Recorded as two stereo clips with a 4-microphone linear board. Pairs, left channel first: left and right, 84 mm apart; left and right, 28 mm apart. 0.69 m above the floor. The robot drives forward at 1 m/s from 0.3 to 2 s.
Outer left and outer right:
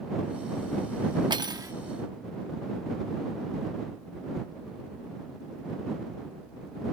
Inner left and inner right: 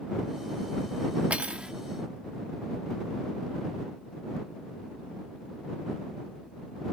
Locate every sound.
1.3 s cutlery clinking: 60° right (ahead or behind); by 1.7 s 40° right (ahead or behind)